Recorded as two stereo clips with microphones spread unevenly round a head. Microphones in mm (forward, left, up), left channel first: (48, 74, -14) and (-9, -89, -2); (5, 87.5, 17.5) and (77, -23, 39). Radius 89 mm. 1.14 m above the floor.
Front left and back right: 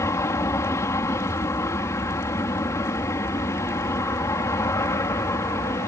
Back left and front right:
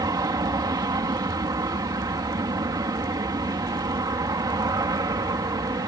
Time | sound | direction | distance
0.0 | an aircraft | straight ahead | ?